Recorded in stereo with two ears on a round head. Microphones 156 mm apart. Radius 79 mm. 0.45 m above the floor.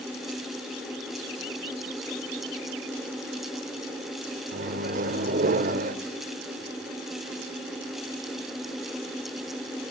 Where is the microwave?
50° right (ahead or behind), 1.4 m.